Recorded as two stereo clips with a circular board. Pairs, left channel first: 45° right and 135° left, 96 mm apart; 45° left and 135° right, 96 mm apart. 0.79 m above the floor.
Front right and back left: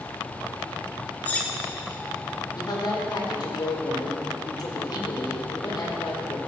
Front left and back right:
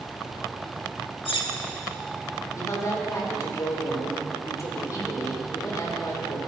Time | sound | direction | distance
1.2 | cutlery clinking | 30° left | 1.3 m
2.6 | a woman speaking | 10° right | 3 m